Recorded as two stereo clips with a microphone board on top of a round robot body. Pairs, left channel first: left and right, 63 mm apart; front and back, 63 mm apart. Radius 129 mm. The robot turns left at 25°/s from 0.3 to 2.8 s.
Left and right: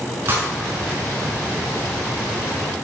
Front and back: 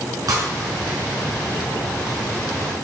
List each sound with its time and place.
0.3 s breaking glass: 145° right, 5.5 m; by 1.2 s 170° right, 5.5 m